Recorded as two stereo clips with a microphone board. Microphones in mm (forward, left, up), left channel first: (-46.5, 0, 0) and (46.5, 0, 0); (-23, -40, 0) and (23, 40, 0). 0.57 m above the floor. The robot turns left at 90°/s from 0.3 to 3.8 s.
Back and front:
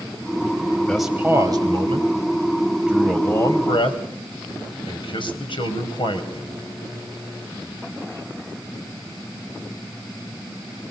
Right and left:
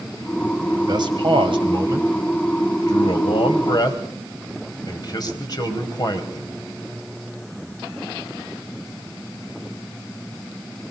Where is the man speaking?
100° left, 3.5 m; by 6.5 s 160° right, 3.5 m.